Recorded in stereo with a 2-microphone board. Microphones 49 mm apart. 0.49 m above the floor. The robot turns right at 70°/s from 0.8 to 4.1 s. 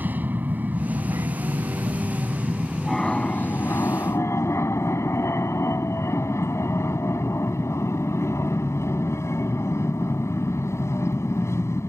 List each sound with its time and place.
0.0 s an aircraft: 140° right; by 11.9 s 90° left